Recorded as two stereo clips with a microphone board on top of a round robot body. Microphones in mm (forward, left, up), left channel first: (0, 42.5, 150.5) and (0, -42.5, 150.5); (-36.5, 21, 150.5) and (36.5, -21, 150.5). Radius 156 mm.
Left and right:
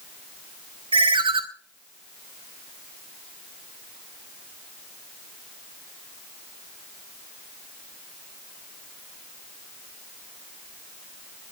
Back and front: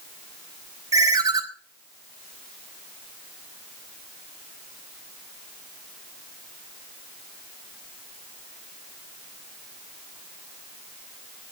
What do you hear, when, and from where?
0.9 s a ringtone: 80° right, 1.7 m